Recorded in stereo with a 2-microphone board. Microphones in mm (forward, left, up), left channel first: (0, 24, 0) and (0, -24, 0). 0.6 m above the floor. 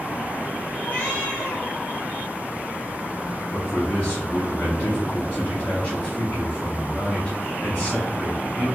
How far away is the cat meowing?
About 2 m.